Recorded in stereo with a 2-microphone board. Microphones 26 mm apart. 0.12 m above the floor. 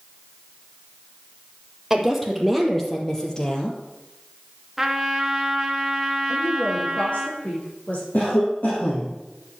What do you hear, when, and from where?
1.9 s a woman speaking: 5° right (ahead or behind), 4 m; by 3.8 s 40° left (ahead or behind), 3 m
4.8 s a trumpet: 10° right (ahead or behind), 1.6 m
6.3 s a woman speaking: 55° left (ahead or behind), 6.5 m
8.1 s a cough: 70° left (ahead or behind), 4.5 m